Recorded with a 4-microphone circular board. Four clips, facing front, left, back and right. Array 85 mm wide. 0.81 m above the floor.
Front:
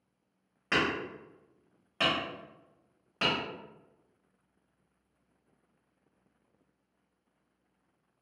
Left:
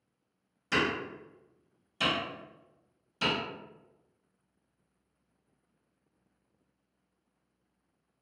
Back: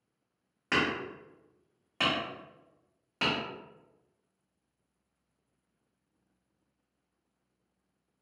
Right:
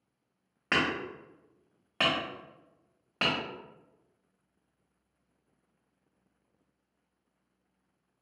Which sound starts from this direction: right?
Hammering, at 0.7 s.